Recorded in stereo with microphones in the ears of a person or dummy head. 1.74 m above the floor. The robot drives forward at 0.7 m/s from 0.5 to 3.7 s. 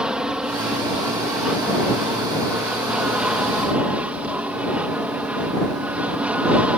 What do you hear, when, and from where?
0.0 s an aircraft: 5° right (ahead or behind)